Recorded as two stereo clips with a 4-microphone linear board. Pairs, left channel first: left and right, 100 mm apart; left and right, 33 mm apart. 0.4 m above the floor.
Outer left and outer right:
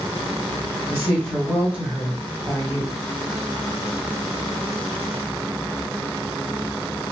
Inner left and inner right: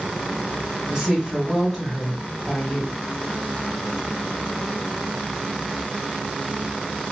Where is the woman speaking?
5° left (ahead or behind), 1.7 m.